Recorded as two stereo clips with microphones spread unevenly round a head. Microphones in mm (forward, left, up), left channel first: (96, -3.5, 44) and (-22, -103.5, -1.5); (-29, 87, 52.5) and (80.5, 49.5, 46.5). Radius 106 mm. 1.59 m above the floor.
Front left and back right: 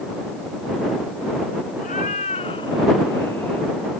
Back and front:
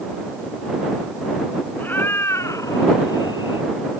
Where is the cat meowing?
90° left; by 3.7 s 120° left.